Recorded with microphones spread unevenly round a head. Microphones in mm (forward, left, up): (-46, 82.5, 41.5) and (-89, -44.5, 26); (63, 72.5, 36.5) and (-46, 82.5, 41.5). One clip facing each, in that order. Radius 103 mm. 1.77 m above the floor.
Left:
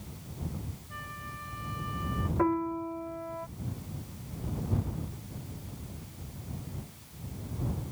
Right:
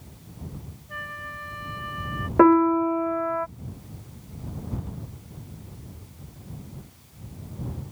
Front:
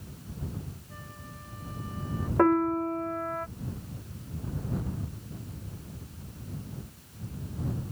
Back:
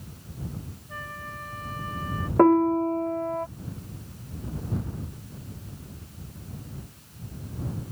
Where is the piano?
115° right.